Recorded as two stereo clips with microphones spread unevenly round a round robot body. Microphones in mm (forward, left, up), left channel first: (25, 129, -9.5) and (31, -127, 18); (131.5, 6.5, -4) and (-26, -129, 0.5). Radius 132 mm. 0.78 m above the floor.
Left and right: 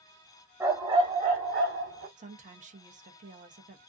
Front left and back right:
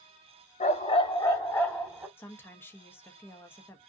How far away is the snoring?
No snoring in this recording.